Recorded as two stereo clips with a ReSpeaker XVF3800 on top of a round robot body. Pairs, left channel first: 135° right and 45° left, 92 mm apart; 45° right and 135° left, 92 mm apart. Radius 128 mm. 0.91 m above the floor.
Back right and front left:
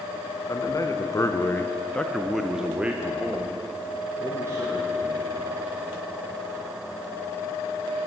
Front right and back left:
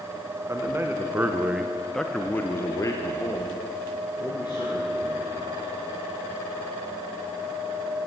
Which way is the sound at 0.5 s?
175° right.